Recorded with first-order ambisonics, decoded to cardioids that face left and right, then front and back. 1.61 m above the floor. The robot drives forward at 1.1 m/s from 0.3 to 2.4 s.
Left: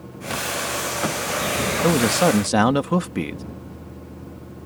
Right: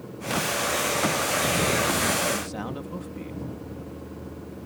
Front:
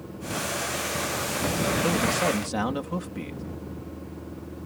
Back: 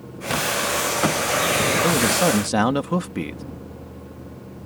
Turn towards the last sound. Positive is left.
turn(degrees=120)